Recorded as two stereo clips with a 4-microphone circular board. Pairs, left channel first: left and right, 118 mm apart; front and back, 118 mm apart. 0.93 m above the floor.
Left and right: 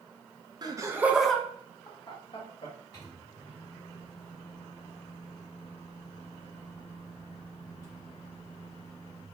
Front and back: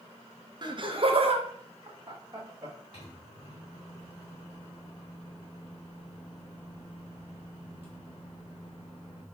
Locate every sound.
0.6 s laughter: 135° right, 0.8 m; by 2.8 s 120° left, 1.2 m
2.9 s a microwave: 35° left, 1.7 m